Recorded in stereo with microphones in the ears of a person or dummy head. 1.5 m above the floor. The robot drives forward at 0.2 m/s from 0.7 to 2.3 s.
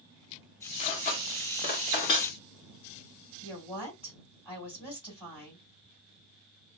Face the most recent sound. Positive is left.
turn(degrees=20)  # may be behind; listen again after turning